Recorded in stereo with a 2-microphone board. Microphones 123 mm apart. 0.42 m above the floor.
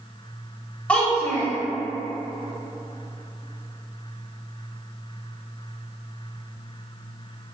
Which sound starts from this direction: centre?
A child speaking, at 0.9 s.